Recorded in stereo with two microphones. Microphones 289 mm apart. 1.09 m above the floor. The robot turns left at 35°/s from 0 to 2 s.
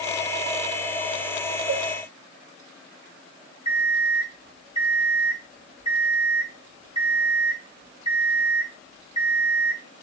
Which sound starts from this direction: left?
An alarm clock, at 3.6 s.